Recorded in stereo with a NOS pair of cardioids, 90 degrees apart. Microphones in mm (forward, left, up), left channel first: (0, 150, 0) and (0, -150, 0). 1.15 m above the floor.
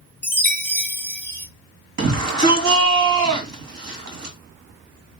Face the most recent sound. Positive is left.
turn(degrees=-70)